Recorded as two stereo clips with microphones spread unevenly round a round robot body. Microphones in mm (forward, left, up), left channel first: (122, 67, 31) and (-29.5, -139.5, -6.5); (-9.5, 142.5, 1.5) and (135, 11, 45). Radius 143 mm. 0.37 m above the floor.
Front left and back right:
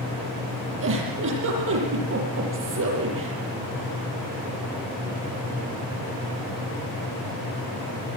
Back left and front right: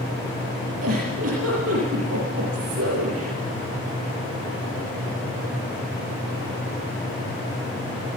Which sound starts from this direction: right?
A giggle, at 0.8 s.